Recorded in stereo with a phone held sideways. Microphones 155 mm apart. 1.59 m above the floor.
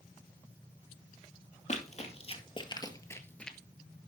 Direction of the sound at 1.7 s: 50° left (ahead or behind).